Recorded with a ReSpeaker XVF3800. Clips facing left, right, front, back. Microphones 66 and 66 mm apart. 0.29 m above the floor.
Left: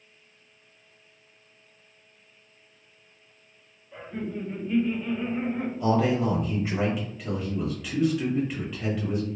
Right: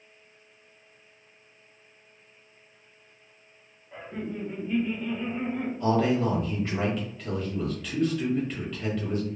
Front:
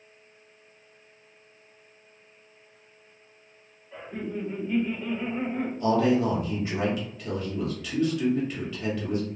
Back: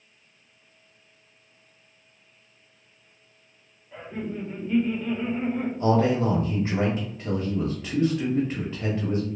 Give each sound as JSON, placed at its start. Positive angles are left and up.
{"t": 3.9, "sound": "laughter", "azimuth_deg": -105, "distance_m": 1.7}
{"t": 5.8, "sound": "a man speaking", "azimuth_deg": 170, "distance_m": 1.0}